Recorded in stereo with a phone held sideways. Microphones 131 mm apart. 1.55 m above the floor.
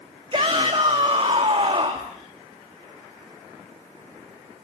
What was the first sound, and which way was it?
A shout, 40° right (ahead or behind).